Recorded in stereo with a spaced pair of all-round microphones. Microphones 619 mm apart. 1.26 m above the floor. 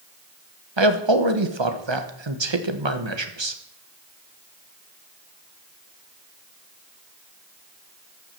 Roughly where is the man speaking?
Right.